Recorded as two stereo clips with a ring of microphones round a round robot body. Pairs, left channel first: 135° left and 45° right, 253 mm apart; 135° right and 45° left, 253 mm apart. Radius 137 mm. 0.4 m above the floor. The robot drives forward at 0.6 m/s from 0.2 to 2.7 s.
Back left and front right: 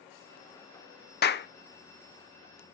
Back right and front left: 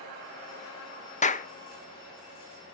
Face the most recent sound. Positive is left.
turn(degrees=175)